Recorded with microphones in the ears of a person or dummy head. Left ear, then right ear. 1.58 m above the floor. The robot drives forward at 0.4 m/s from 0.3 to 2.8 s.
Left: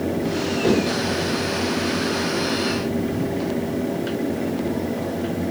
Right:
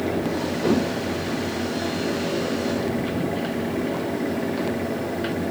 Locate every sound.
0.6 s a whoosh: 5° left (ahead or behind), 7.5 m